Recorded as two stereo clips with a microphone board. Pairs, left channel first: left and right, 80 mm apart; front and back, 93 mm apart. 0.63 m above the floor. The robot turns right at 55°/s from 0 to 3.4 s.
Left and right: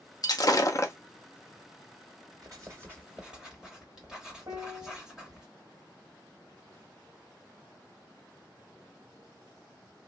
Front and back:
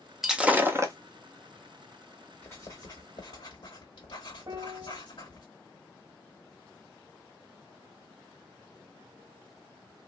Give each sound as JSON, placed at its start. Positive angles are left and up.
{"t": 0.2, "sound": "breaking glass", "azimuth_deg": 95, "distance_m": 0.5}
{"t": 2.4, "sound": "writing", "azimuth_deg": -65, "distance_m": 2.0}
{"t": 4.5, "sound": "a piano", "azimuth_deg": -135, "distance_m": 0.8}